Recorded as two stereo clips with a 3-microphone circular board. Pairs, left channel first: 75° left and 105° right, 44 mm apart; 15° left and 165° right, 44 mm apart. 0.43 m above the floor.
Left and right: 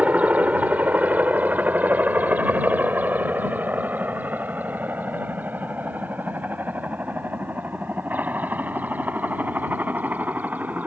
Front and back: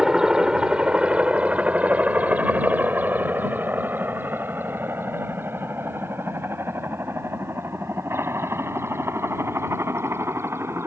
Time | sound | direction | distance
0.0 | a helicopter | 100° right | ?